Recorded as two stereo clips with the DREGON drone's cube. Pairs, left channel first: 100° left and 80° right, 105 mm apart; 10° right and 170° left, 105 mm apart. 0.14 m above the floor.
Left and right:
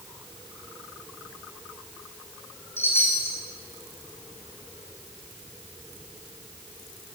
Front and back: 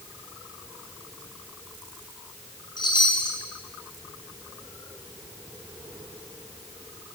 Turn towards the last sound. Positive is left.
turn(degrees=35)